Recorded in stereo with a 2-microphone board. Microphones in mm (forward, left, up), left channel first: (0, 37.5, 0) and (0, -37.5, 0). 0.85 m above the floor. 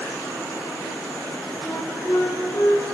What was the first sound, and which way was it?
A flute, 40° left (ahead or behind).